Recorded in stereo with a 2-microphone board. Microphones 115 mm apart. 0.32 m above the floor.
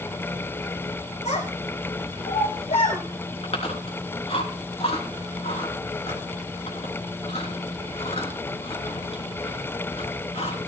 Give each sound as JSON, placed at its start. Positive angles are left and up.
{"t": 1.2, "sound": "a child speaking", "side_deg": 65, "distance_m": 3.5}
{"t": 3.4, "sound": "chewing", "side_deg": 55, "distance_m": 3.5}